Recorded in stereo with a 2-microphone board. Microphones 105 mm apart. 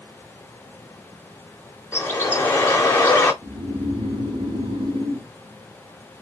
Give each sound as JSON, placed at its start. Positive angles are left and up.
{"t": 1.9, "sound": "a bird", "side_deg": 25, "distance_m": 0.8}
{"t": 3.4, "sound": "snoring", "side_deg": -55, "distance_m": 0.8}